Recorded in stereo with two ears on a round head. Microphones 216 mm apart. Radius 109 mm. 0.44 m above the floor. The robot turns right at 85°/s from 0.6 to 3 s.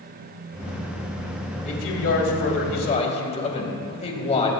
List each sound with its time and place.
1.6 s a man speaking: 35° left, 2.5 m; by 4.5 s 150° left, 2.5 m